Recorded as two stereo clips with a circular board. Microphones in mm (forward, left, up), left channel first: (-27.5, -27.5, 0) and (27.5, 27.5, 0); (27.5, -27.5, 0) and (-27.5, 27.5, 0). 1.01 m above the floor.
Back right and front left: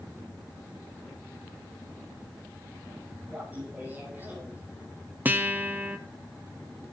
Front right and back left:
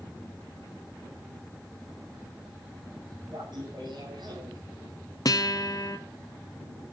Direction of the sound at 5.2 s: 20° right.